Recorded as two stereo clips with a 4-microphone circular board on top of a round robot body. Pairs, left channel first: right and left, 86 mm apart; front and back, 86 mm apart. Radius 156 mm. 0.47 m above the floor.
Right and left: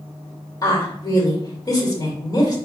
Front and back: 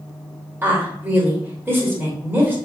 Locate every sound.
0.6 s a woman speaking: 120° right, 1.5 m